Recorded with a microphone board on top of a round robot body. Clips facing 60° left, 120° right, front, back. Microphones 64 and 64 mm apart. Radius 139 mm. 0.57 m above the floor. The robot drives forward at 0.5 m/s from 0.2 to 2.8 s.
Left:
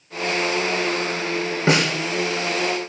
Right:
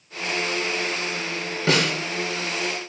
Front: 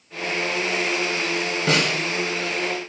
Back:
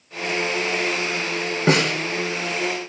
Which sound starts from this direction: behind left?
A snare drum, at 1.7 s.